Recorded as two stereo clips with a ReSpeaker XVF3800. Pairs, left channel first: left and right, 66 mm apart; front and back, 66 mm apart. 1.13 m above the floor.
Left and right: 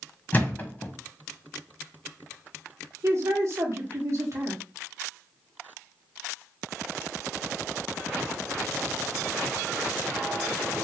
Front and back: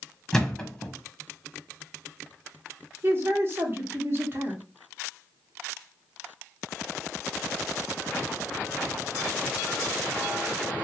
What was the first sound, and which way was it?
A thud, 75° left.